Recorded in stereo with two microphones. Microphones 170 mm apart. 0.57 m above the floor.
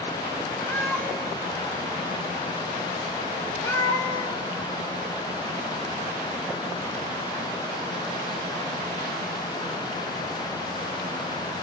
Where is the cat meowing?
15° left (ahead or behind), 1.7 m.